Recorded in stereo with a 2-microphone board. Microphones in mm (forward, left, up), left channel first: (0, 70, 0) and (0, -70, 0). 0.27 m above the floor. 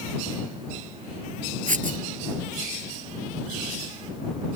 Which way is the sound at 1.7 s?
70° right (ahead or behind).